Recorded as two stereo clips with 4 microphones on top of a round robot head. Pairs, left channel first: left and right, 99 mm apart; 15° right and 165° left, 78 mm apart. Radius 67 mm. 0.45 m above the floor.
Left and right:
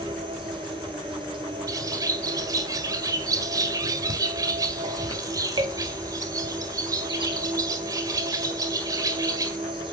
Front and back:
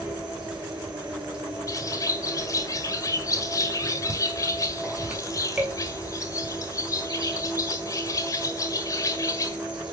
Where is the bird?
45° right, 1.1 m.